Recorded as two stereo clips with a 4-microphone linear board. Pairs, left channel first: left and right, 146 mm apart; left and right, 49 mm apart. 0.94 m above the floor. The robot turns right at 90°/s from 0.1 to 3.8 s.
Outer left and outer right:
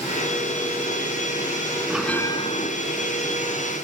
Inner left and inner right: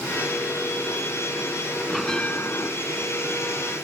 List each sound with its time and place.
1.9 s a bell: 10° right; by 2.7 s 65° left